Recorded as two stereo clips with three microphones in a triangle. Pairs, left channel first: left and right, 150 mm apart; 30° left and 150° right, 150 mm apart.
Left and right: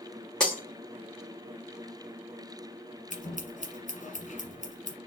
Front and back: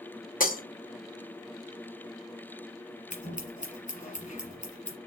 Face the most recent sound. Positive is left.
turn(degrees=60)